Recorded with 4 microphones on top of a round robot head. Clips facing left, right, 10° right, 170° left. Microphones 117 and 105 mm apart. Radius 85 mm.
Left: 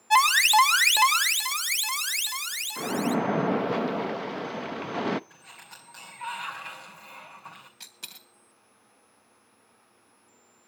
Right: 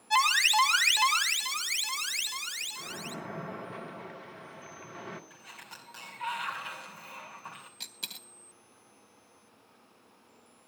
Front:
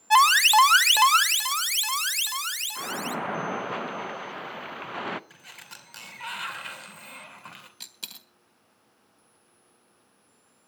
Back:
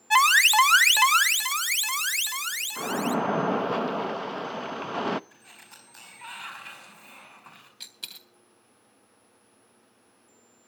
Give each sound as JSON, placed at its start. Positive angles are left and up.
{"t": 0.1, "sound": "an alarm", "azimuth_deg": 55, "distance_m": 1.2}
{"t": 2.8, "sound": "a splash", "azimuth_deg": 105, "distance_m": 0.5}
{"t": 5.3, "sound": "a sliding door", "azimuth_deg": -5, "distance_m": 2.5}
{"t": 7.8, "sound": "a dropped coin", "azimuth_deg": -40, "distance_m": 0.6}